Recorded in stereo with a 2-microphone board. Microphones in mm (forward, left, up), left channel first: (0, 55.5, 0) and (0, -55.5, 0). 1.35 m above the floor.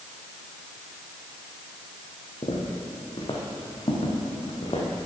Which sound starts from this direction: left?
Footsteps, at 2.4 s.